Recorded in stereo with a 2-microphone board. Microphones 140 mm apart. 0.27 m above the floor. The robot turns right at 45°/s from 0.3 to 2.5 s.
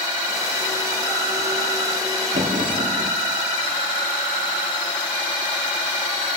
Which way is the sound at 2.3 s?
75° right (ahead or behind).